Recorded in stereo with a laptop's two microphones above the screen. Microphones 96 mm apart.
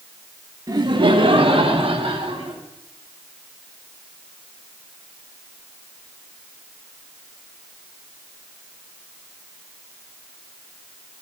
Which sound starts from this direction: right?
Laughter, at 0.7 s.